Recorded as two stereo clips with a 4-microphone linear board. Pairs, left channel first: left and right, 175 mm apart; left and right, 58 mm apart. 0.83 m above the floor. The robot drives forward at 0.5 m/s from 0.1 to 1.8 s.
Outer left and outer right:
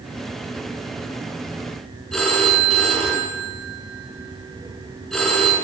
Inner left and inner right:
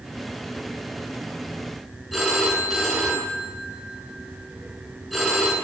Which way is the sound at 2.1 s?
5° left (ahead or behind).